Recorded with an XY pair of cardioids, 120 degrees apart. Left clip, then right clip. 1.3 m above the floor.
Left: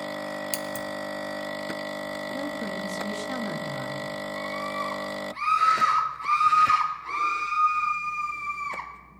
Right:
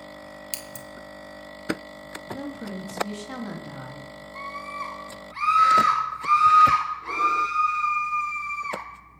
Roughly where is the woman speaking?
Ahead.